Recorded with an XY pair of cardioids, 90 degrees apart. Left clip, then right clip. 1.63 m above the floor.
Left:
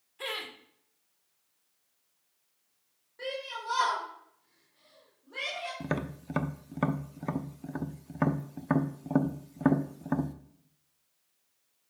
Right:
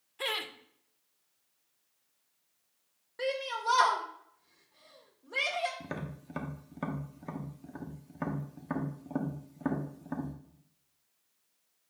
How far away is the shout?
About 1.4 m.